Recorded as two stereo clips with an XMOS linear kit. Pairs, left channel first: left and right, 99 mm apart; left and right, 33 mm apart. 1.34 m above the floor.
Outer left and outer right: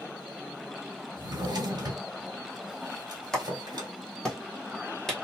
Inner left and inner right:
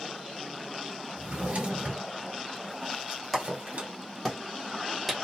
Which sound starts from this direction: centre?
A clap, at 3.3 s.